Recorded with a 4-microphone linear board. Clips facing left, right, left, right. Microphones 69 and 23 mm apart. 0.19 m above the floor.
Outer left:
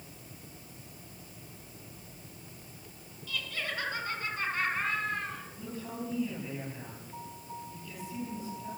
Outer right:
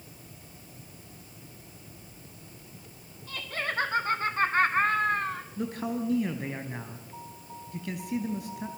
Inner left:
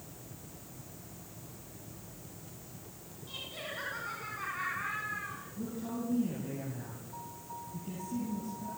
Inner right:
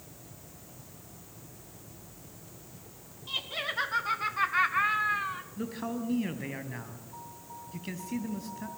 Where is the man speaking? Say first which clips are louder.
Outer right 9 dB, inner right 1 dB; 70° right (ahead or behind), 4 m.